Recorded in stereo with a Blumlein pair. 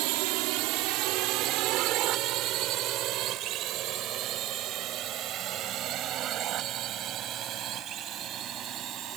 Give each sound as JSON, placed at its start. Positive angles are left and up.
{"t": 0.0, "sound": "a drone", "azimuth_deg": -45}